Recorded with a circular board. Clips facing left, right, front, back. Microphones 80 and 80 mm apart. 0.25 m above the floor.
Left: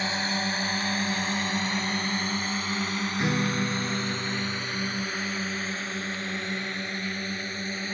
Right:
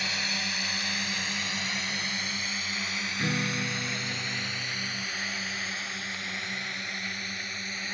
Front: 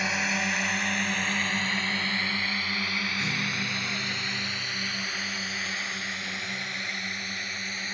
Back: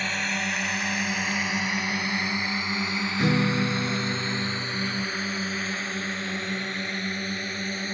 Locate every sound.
0.0 s a drone: 75° left; by 8.0 s 140° left
3.2 s a guitar: 165° left